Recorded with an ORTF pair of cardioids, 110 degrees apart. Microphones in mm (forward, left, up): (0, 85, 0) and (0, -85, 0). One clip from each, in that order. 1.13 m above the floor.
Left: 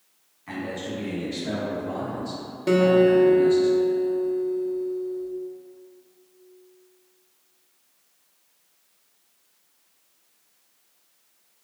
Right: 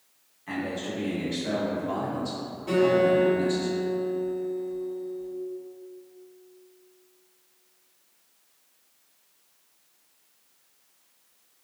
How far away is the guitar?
About 0.8 m.